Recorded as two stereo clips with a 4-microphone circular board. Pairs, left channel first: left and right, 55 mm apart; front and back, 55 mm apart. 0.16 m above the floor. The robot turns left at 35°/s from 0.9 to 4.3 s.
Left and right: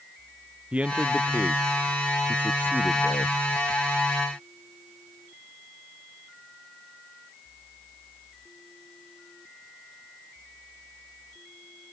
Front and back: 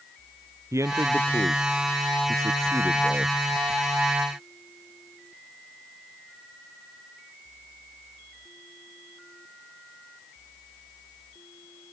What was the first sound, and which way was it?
A man speaking, 155° right.